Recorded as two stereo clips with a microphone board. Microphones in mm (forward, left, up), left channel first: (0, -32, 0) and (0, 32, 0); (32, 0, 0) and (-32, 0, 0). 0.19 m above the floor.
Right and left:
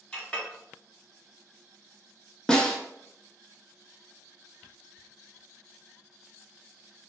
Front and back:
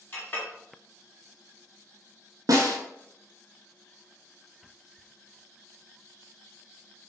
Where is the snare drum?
170° right, 0.6 m.